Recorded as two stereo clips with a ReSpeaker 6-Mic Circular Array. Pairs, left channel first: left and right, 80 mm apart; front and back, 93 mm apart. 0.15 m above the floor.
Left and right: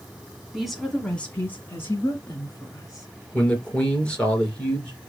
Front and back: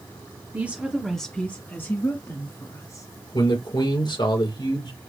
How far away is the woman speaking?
About 1.4 m.